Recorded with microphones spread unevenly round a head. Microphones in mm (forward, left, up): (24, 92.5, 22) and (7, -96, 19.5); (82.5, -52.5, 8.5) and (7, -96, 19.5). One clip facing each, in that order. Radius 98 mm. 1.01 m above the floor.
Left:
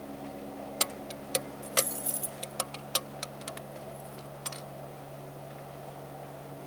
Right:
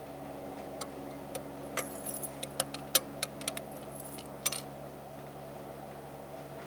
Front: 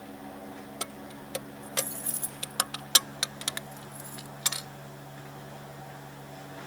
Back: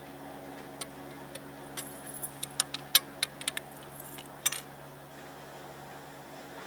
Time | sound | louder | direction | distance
0.8 | keys jangling | left 3 dB, front 3 dB | 90° left | ?